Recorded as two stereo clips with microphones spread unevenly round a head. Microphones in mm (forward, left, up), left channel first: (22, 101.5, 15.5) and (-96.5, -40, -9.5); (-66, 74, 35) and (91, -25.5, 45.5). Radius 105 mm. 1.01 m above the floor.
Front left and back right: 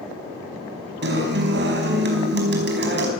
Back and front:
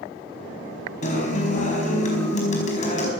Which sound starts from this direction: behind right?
A guitar, at 1.0 s.